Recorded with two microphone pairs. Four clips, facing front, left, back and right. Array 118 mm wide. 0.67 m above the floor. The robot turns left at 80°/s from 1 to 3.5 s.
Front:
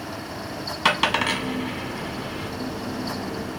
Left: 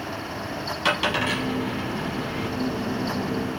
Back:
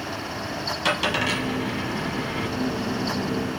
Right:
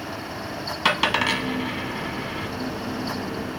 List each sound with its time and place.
0.8 s a dropped coin: 35° right, 1.2 m; by 2.5 s 150° right, 1.2 m